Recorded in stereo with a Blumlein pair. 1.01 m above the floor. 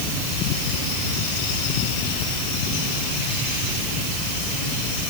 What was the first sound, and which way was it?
Only background noise.